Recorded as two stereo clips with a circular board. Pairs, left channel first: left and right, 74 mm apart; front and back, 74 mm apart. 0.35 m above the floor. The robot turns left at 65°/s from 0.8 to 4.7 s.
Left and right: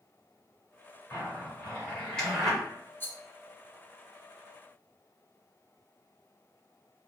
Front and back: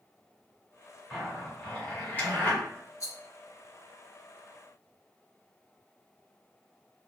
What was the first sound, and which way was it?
A zipper, 100° left.